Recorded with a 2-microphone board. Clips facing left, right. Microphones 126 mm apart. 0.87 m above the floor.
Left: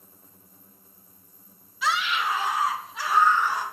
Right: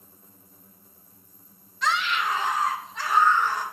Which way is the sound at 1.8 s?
5° left (ahead or behind).